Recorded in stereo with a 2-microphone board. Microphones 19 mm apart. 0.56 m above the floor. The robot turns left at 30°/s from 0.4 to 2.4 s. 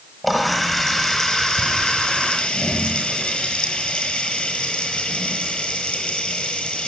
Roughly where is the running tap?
Behind.